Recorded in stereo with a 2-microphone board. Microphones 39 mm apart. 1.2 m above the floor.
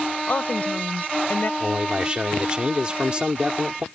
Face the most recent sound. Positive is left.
turn(degrees=-25)  # may be behind; listen again after turning